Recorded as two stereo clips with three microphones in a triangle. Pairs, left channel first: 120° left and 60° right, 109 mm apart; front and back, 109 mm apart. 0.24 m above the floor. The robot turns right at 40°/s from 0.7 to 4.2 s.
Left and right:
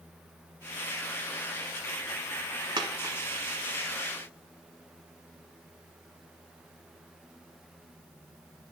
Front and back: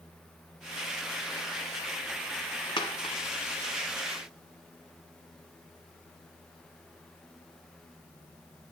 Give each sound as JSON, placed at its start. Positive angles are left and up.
{"t": 2.8, "sound": "a dropped coin", "azimuth_deg": -25, "distance_m": 0.8}